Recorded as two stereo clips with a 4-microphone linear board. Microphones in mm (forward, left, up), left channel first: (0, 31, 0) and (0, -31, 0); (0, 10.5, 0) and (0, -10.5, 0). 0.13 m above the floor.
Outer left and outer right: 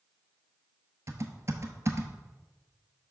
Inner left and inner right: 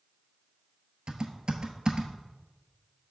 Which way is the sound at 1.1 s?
45° right (ahead or behind).